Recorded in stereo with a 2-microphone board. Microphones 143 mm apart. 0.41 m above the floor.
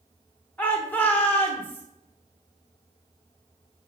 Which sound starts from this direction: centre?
A shout, at 0.6 s.